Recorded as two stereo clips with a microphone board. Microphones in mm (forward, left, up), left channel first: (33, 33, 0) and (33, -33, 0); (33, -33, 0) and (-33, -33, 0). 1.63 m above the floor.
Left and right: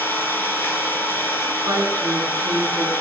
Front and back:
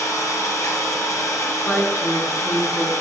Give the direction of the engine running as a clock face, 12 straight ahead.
11 o'clock.